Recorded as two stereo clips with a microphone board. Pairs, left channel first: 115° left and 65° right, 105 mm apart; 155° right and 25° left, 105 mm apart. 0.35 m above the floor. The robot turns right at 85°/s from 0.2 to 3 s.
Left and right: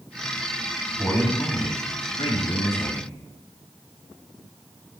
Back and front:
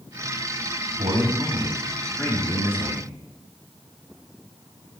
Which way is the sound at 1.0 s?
20° left.